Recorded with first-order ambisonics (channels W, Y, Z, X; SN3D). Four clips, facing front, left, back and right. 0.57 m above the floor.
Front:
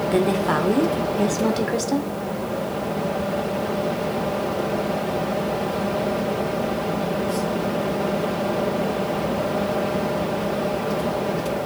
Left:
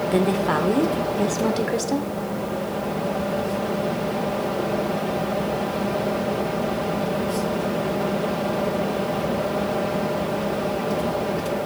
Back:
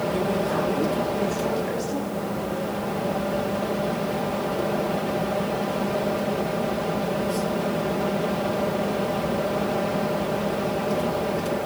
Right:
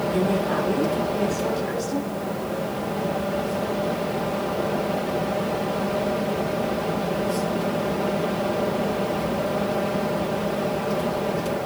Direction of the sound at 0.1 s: 45° left.